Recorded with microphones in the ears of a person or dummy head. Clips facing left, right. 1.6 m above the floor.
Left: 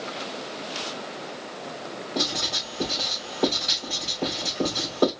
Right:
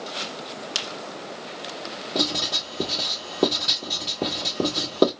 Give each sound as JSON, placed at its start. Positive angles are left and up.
{"t": 2.1, "sound": "writing", "side_deg": -65, "distance_m": 2.5}